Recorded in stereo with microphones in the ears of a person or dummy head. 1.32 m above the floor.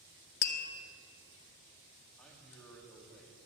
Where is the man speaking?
5° left (ahead or behind), 2 m.